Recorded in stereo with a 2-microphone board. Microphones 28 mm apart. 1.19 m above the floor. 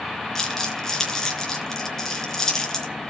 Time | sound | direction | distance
0.3 | crumpling | 15° left (ahead or behind) | 4 m